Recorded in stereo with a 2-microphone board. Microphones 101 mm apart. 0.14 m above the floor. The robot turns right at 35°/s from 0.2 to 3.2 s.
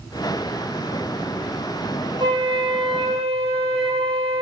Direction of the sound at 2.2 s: 130° right.